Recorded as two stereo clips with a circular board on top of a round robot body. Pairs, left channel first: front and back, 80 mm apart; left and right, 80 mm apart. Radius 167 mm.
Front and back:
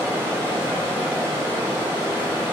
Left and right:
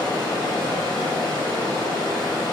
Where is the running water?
120° left, 1.6 m.